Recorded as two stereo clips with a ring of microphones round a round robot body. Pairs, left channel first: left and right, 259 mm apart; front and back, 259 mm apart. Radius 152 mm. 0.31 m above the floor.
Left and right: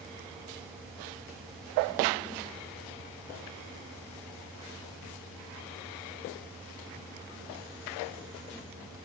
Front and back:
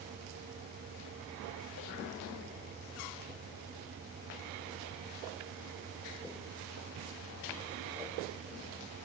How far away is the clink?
I don't hear a clink.